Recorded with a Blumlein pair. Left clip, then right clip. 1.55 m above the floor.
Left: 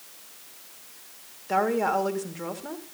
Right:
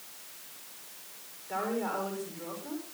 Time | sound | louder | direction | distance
1.5 | a woman speaking | left 9 dB | 30° left | 3 m